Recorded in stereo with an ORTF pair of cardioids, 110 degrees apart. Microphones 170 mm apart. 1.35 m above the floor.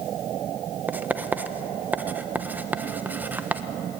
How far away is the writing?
About 1.2 m.